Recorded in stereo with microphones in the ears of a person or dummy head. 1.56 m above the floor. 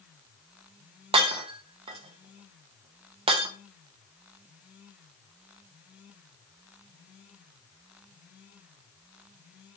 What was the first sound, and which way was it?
Breaking glass, 30° right (ahead or behind).